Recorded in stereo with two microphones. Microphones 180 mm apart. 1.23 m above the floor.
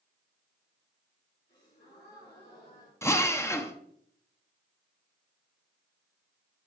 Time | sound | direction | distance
1.5 | a gasp | 65° left (ahead or behind) | 4 m
3.0 | a drill | 15° left (ahead or behind) | 0.6 m